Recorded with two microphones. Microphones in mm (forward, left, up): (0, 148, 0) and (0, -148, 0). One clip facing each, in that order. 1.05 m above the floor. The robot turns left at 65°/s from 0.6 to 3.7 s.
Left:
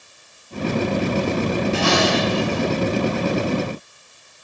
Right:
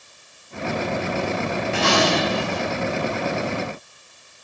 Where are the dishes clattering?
75° right, 3 m; by 2.6 s 135° right, 3 m.